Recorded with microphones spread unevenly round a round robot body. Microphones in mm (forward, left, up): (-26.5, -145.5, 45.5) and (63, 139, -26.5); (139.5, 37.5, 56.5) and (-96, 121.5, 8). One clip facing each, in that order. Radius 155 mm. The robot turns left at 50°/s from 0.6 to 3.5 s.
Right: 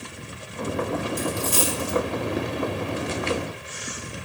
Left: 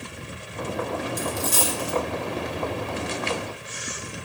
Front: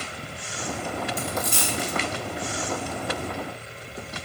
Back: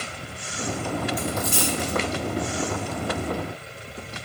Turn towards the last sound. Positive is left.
turn(degrees=-90)